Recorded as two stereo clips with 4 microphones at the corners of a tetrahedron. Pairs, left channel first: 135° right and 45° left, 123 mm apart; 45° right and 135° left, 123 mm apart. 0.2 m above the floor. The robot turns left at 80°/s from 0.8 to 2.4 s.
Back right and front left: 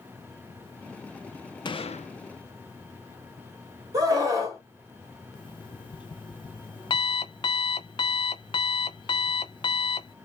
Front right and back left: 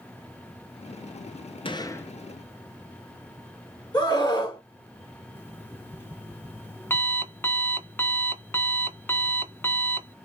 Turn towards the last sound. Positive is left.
turn(degrees=-110)